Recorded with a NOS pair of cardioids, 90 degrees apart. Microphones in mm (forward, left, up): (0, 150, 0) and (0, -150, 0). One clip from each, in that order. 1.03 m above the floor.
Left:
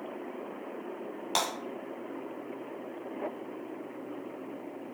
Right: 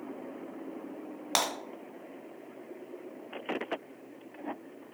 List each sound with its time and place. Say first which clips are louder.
1.4 s breaking glass: right 1 dB; 40° right, 1.1 m